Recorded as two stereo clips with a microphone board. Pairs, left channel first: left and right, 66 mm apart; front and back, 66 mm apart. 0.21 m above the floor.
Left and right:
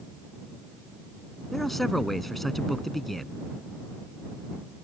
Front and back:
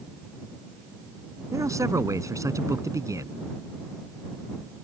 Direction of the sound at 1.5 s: 175° left.